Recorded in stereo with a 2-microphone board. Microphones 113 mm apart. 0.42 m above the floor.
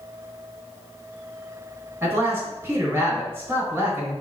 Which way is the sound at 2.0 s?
25° right (ahead or behind).